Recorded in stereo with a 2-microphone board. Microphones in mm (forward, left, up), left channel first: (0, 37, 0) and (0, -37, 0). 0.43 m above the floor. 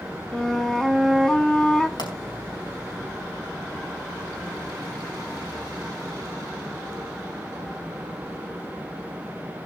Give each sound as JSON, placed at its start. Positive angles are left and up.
{"t": 0.3, "sound": "a flute", "side_deg": 10, "distance_m": 0.8}
{"t": 2.0, "sound": "a pop", "side_deg": 70, "distance_m": 4.0}